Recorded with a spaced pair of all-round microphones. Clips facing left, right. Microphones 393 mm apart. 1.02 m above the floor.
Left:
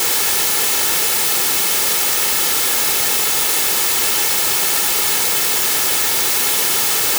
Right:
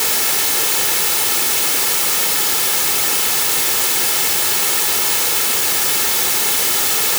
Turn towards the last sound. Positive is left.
No sound to turn to.